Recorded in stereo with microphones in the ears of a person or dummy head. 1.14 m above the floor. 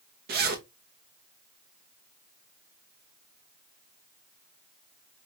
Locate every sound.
0.3 s a zipper: 45° right (ahead or behind), 0.6 m